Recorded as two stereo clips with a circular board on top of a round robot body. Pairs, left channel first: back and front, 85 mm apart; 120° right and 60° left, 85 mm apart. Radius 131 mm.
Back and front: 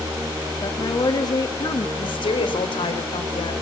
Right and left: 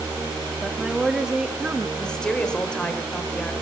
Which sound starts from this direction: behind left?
A woman speaking, at 0.6 s.